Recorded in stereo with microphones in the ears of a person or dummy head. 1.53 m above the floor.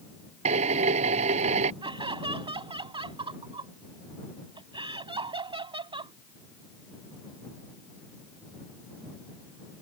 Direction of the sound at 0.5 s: 35° right (ahead or behind).